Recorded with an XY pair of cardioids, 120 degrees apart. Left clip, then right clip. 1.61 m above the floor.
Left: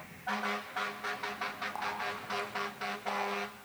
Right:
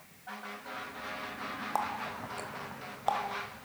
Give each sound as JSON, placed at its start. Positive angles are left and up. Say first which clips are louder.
{"t": 1.8, "sound": "a running tap", "louder": "right 5 dB", "azimuth_deg": -55, "distance_m": 4.5}